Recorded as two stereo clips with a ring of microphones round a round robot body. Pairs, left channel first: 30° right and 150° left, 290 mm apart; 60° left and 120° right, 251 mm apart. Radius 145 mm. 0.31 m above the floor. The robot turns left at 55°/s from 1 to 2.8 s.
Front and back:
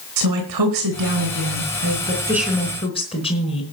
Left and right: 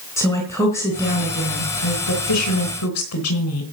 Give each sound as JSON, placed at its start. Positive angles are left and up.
{"t": 0.2, "sound": "a woman speaking", "azimuth_deg": 140, "distance_m": 3.5}